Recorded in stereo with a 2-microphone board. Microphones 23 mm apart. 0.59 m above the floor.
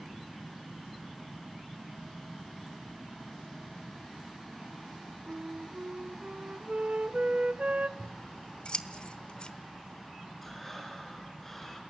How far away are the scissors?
About 1.2 m.